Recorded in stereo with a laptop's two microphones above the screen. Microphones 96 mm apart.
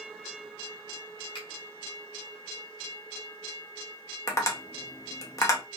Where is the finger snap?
55° left (ahead or behind), 1.2 m.